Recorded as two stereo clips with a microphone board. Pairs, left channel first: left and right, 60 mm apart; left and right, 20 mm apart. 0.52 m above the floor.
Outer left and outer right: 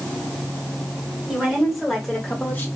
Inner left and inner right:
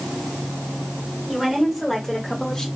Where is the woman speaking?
15° right (ahead or behind), 2 m; by 2.7 s 35° left (ahead or behind), 1.1 m.